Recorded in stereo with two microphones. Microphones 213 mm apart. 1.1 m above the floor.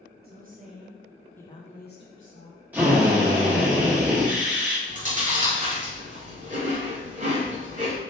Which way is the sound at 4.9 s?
35° right (ahead or behind).